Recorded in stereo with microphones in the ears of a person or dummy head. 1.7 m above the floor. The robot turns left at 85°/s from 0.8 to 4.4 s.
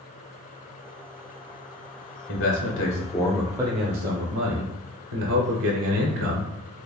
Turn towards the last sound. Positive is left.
turn(degrees=-80)